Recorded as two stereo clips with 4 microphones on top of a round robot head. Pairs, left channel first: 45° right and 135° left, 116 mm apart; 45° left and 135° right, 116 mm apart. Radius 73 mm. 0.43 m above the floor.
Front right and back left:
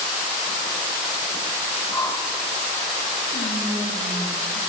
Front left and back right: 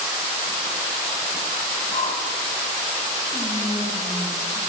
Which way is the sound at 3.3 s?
60° right.